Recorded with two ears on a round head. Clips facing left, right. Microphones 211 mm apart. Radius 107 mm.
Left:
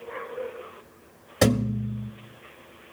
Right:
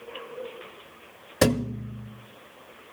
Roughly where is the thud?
Centre.